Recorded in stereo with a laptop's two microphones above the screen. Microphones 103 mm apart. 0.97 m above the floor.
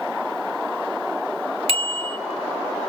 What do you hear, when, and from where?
1.7 s a bicycle bell: 70° right (ahead or behind), 2 m